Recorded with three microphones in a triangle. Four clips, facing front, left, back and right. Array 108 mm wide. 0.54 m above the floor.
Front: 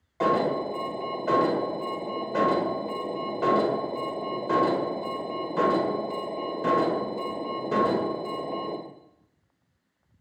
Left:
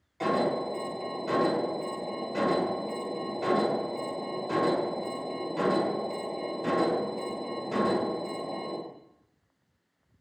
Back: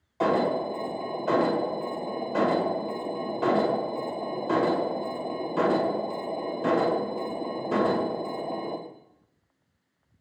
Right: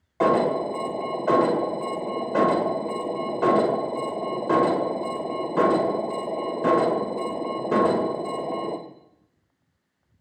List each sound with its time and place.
0.2 s an alarm: 95° right, 1.7 m